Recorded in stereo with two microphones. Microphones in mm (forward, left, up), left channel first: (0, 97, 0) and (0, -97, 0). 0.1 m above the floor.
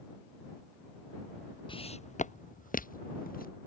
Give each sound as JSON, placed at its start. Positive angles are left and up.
{"t": 1.7, "sound": "footsteps", "side_deg": 25}